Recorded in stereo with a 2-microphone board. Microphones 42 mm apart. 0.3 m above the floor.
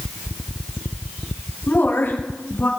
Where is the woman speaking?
55° left (ahead or behind), 4.5 m; by 2.7 s 60° left (ahead or behind), 5.5 m.